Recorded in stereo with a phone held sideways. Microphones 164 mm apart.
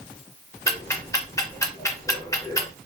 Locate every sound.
0.7 s ticking: 20° left (ahead or behind), 0.6 m